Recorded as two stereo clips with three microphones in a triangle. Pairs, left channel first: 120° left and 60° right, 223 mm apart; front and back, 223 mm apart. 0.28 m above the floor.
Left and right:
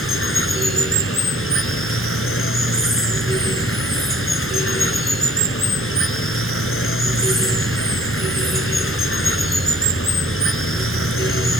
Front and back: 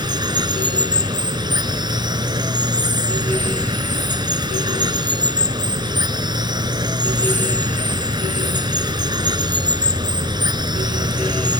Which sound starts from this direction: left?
Running water, at 0.0 s.